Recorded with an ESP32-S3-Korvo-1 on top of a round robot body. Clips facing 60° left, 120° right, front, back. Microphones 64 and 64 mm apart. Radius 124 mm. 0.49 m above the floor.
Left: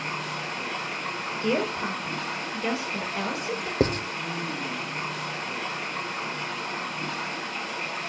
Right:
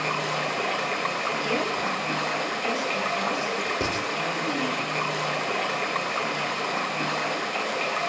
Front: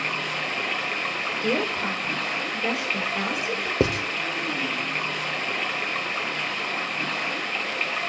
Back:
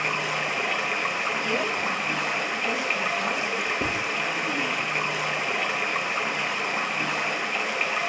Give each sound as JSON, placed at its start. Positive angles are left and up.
{"t": 0.0, "sound": "running water", "azimuth_deg": -105, "distance_m": 2.5}
{"t": 1.4, "sound": "a woman speaking", "azimuth_deg": -5, "distance_m": 5.0}
{"t": 3.8, "sound": "writing", "azimuth_deg": 5, "distance_m": 0.9}